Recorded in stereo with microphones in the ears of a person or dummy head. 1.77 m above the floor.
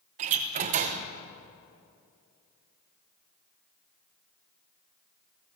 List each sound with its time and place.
0.2 s a door slam: 40° right (ahead or behind), 0.9 m